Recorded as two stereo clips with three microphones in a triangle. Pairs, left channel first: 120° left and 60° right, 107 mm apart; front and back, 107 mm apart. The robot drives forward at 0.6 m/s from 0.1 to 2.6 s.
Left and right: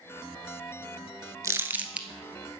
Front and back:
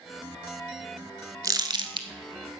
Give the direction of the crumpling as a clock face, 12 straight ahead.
4 o'clock.